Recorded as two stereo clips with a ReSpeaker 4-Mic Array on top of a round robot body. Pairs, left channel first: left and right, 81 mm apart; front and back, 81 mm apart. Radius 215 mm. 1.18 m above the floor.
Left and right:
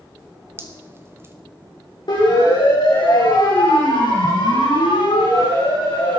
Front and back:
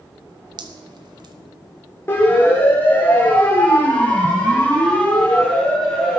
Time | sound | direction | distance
0.6 | dripping | 150° right | 0.9 m
2.1 | a siren | 60° left | 7 m